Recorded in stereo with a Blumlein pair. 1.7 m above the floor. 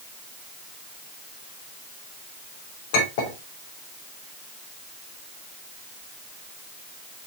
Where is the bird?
I don't hear a bird.